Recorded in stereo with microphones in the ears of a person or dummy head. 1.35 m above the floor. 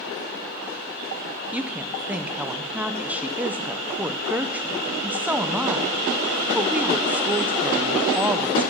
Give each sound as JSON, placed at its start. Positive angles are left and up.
{"t": 1.5, "sound": "a woman speaking", "side_deg": -5, "distance_m": 0.7}